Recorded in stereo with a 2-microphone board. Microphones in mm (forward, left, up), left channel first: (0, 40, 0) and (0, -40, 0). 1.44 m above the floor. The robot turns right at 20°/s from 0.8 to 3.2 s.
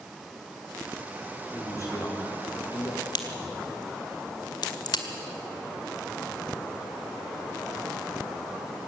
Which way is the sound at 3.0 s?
60° left (ahead or behind).